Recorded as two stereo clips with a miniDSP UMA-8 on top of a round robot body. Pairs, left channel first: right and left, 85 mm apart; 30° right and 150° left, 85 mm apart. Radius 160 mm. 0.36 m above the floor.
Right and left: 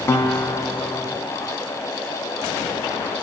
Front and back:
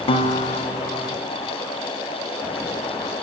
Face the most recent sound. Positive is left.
turn(degrees=-25)